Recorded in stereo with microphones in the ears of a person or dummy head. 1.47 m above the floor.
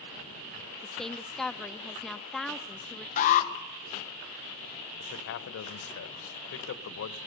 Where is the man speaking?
70° left (ahead or behind), 1.3 m.